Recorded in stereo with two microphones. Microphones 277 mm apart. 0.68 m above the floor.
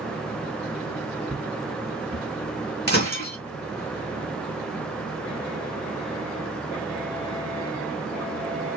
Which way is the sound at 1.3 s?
Centre (ahead or behind).